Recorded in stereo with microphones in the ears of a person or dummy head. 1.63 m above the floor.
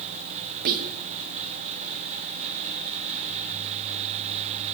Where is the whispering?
55° right (ahead or behind), 0.8 m.